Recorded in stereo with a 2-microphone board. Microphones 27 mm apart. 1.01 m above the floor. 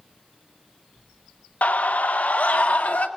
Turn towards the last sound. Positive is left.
turn(degrees=85)